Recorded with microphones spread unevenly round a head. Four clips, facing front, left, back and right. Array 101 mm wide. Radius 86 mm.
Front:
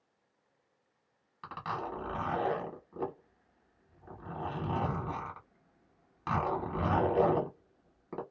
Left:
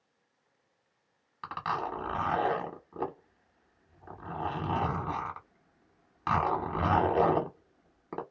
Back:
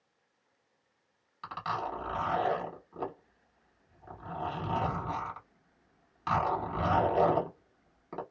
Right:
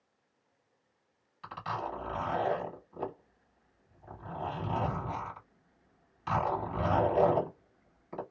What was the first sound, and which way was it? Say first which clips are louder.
A zipper: left 3 dB, back 3 dB; 80° left.